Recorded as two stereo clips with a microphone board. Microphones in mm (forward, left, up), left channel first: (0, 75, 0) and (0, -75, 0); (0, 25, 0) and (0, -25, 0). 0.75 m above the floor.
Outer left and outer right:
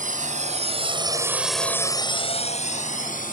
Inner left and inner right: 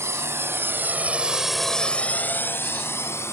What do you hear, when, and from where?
0.0 s a drone: 60° right (ahead or behind); by 3.3 s 60° left (ahead or behind)